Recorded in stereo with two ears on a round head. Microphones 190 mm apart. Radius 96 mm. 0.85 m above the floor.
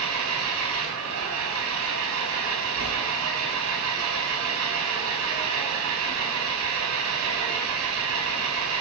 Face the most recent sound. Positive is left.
turn(degrees=-85)